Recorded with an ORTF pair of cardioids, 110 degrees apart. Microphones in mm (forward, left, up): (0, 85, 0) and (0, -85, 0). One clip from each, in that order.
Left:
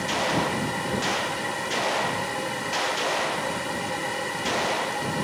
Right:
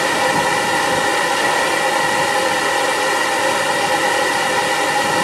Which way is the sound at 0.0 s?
65° right.